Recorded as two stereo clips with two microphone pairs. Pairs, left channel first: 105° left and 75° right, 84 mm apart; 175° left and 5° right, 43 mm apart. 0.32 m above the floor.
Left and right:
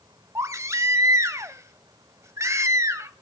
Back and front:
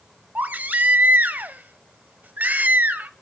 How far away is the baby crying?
About 0.8 m.